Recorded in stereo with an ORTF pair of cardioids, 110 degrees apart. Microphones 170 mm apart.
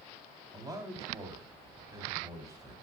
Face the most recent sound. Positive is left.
turn(degrees=-20)